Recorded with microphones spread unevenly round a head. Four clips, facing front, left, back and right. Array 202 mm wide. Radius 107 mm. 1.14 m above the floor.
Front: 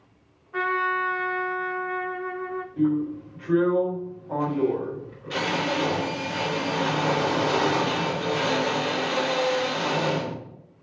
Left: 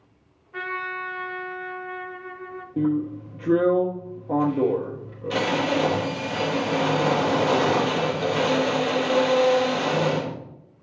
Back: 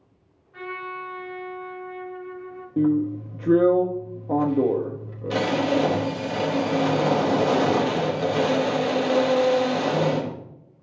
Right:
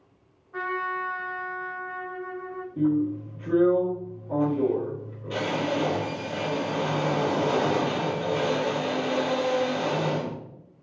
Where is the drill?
150° left, 1.1 m.